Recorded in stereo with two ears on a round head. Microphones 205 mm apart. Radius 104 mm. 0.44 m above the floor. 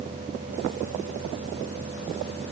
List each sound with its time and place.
Only background noise.